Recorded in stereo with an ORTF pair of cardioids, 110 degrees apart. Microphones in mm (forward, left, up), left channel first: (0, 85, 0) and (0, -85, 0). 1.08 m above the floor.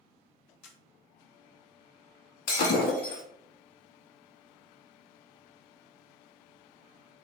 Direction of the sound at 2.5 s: 70° left.